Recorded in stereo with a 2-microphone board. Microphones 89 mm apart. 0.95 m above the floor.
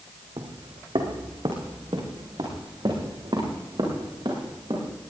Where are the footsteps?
70° right (ahead or behind), 2.5 m.